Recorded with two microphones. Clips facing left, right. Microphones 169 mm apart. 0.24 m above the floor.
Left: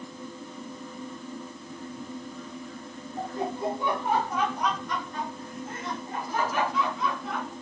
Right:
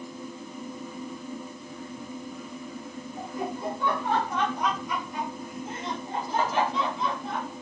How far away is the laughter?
About 1.3 m.